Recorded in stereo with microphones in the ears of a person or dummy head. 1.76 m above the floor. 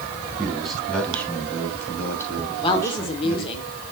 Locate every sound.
0.4 s a man speaking: 5° right (ahead or behind), 2 m; by 3.5 s 15° left (ahead or behind), 4.5 m
2.6 s a woman speaking: 30° left (ahead or behind), 1.2 m